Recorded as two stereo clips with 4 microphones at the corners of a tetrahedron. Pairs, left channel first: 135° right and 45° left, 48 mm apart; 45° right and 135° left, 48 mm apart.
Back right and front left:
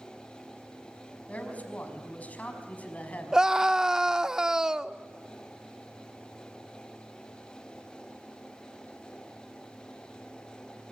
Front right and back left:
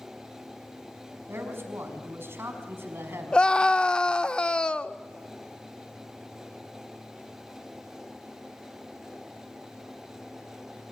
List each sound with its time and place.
1.3 s a man speaking: 165° left, 5 m
3.3 s a scream: 15° right, 0.8 m